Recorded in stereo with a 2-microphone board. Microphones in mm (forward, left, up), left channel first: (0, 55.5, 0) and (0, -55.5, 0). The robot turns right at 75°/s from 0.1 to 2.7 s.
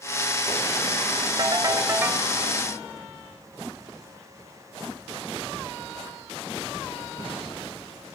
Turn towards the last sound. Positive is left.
turn(degrees=20)